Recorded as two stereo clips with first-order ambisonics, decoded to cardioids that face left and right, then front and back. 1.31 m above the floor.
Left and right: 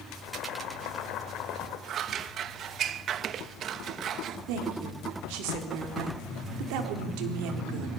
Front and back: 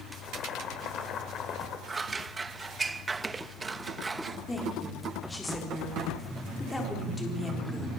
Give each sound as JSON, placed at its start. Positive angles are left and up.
{"t": 0.1, "sound": "boiling", "azimuth_deg": 50, "distance_m": 3.0}
{"t": 1.9, "sound": "scissors", "azimuth_deg": -115, "distance_m": 0.6}
{"t": 4.5, "sound": "a woman speaking", "azimuth_deg": -80, "distance_m": 3.5}